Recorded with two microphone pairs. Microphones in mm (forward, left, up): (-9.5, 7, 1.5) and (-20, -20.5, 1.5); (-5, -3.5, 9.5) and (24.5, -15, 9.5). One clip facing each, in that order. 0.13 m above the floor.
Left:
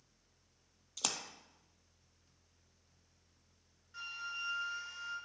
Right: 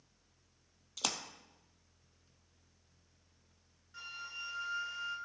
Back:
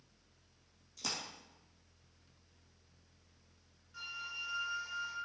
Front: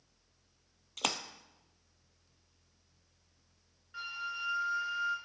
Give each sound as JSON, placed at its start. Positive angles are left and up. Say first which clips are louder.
{"t": 1.0, "sound": "a splash", "louder": "right 2 dB, front 7 dB", "azimuth_deg": -30, "distance_m": 0.8}
{"t": 3.9, "sound": "a flute", "louder": "left 3 dB, front 4 dB", "azimuth_deg": -15, "distance_m": 2.0}